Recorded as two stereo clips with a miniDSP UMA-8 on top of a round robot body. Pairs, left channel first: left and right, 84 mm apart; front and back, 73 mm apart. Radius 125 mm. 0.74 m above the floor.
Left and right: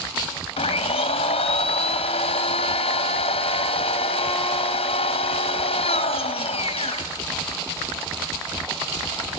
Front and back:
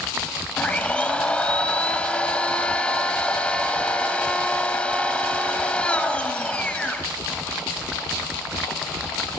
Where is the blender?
80° left, 2.0 m.